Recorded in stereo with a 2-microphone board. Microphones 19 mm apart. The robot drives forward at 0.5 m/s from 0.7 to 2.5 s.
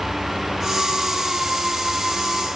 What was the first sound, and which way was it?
Only background noise.